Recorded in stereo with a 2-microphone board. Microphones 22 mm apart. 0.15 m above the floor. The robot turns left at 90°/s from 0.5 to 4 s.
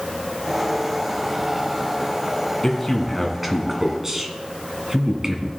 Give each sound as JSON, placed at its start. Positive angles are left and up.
{"t": 2.6, "sound": "a man speaking", "side_deg": 25, "distance_m": 1.2}